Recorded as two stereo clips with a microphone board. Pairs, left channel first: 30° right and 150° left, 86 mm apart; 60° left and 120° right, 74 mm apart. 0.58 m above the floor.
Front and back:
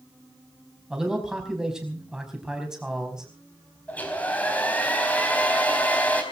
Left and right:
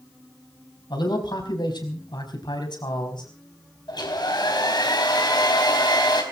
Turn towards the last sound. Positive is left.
turn(degrees=40)